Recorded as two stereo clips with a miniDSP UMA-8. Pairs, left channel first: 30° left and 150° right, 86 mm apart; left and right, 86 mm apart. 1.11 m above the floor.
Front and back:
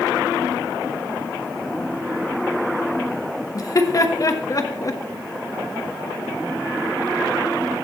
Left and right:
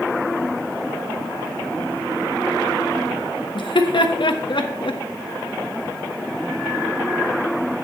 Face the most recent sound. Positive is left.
turn(degrees=75)